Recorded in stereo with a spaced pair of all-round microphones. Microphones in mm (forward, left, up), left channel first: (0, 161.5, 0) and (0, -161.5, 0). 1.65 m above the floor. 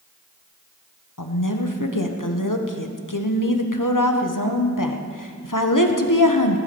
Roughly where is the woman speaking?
Left.